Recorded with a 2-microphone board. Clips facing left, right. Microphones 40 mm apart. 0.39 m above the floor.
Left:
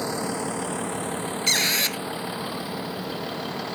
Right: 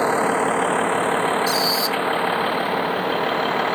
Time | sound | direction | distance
0.0 | a vehicle | 40° right (ahead or behind) | ?
1.5 | a squeak | 60° left (ahead or behind) | ?